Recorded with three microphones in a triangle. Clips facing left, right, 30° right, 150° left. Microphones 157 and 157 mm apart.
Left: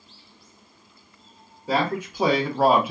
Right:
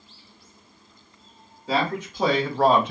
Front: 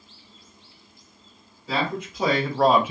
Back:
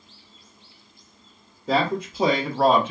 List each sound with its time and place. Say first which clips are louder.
1.7 s a man speaking: left 1 dB, back 4 dB; 165° left, 0.7 m; by 2.9 s 20° left, 0.5 m